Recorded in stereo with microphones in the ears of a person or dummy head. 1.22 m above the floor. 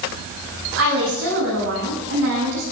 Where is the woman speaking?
90° right, 8 m; by 2.6 s 85° right, 9.5 m.